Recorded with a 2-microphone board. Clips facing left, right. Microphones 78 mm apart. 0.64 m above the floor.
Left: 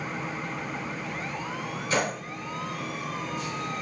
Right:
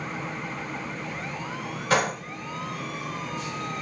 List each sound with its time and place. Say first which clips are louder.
1.9 s a gunshot: right 4 dB; 80° right, 1.7 m